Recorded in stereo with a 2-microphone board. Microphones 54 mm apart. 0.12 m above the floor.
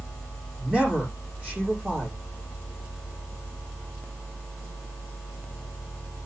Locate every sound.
0.6 s a man speaking: 25° right (ahead or behind), 4.5 m